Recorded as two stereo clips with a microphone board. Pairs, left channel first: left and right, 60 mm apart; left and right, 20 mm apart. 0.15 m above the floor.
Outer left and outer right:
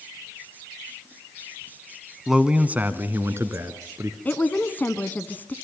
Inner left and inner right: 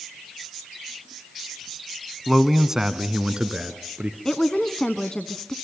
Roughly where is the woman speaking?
Left.